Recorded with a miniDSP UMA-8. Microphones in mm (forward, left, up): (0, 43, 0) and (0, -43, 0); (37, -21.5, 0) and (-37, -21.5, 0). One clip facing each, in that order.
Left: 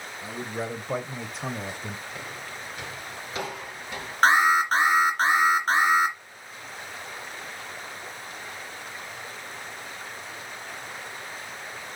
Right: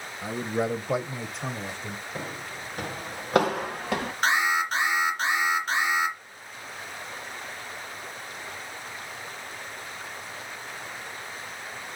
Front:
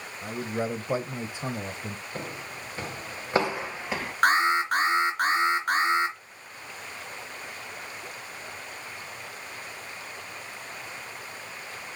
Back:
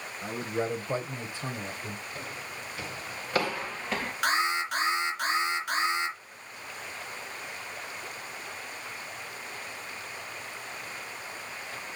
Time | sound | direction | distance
0.2 | a man speaking | 90° right | 1.0 m
2.1 | footsteps | 35° right | 2 m
4.2 | an alarm | 45° left | 3 m